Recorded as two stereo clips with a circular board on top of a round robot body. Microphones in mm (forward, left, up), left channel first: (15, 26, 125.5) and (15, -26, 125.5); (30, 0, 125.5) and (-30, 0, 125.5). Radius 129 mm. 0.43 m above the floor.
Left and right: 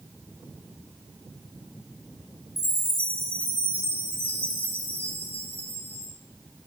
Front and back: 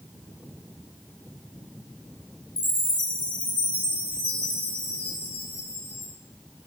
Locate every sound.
2.6 s a chime: 45° left, 5.5 m